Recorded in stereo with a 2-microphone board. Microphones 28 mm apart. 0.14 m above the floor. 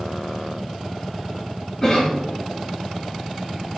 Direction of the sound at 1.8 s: 25° left (ahead or behind).